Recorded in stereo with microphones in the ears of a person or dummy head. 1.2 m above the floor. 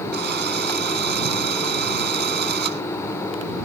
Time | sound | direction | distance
0.1 | a drill | 55° right (ahead or behind) | ?